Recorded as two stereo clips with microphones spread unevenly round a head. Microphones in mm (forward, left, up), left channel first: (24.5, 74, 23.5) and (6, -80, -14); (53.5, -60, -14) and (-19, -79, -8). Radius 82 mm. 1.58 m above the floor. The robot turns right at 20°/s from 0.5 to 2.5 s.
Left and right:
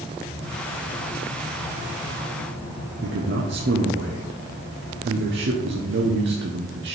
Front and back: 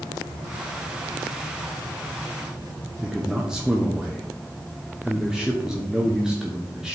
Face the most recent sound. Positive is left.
turn(degrees=-85)